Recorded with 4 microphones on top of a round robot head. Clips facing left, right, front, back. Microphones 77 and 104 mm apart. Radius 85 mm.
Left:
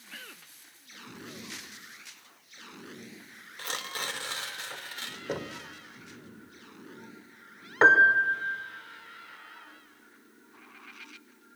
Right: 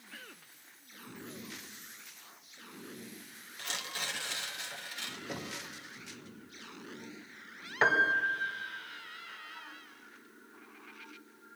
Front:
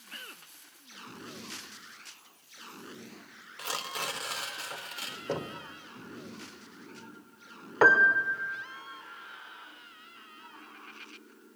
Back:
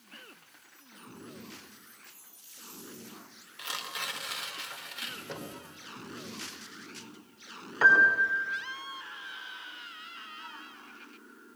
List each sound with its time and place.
3.6 s tearing paper: 50° left, 3 m
5.3 s knocking: 45° left, 1.9 m
7.8 s a piano: 40° left, 2 m